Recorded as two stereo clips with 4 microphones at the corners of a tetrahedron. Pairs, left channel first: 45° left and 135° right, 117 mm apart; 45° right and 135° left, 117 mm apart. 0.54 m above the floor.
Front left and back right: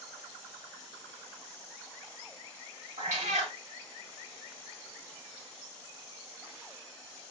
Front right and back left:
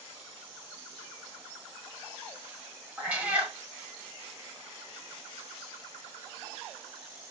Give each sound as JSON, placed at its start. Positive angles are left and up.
{"t": 3.0, "sound": "a cat meowing", "azimuth_deg": -145, "distance_m": 0.9}